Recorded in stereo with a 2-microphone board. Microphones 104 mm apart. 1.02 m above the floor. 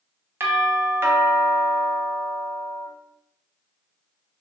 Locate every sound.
0.4 s a doorbell: 25° right (ahead or behind), 0.6 m